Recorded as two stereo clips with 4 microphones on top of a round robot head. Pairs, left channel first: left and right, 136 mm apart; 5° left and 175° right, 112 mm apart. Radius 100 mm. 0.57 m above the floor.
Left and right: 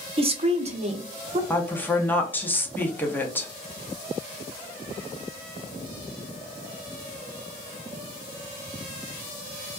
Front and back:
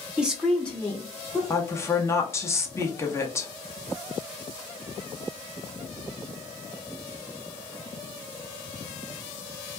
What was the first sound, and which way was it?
A woman speaking, 100° right.